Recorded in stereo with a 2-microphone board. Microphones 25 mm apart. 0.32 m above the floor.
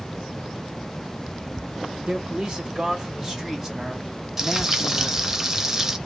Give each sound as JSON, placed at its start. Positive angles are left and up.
{"t": 2.1, "sound": "a man speaking", "side_deg": -30, "distance_m": 1.6}
{"t": 4.4, "sound": "frying", "side_deg": -15, "distance_m": 0.6}